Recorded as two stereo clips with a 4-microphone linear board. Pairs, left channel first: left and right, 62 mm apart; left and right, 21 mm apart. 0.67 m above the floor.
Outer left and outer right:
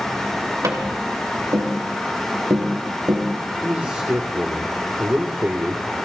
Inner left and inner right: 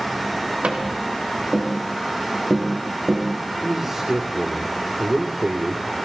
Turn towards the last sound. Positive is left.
turn(degrees=-30)  # may be behind; listen again after turning